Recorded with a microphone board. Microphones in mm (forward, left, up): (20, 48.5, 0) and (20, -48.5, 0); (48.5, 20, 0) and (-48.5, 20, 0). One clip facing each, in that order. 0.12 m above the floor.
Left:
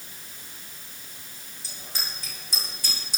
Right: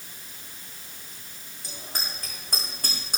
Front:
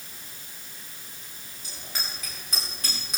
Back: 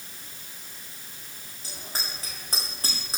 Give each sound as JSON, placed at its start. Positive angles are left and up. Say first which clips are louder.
{"t": 1.6, "sound": "a bicycle bell", "louder": "right 2 dB, back 1 dB", "azimuth_deg": -130, "distance_m": 7.5}